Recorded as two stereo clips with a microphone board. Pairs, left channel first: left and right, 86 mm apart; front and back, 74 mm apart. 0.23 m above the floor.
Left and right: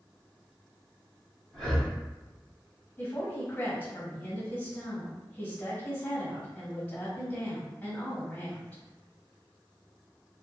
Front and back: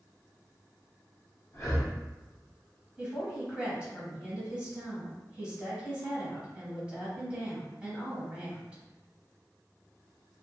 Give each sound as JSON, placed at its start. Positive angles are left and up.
{"t": 1.5, "sound": "breathing", "azimuth_deg": 5, "distance_m": 1.1}
{"t": 3.0, "sound": "a woman speaking", "azimuth_deg": 130, "distance_m": 1.2}